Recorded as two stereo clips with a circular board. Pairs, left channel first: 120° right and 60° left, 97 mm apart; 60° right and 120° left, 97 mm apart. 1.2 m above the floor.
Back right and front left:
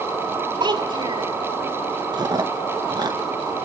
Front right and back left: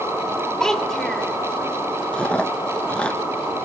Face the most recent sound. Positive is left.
turn(degrees=20)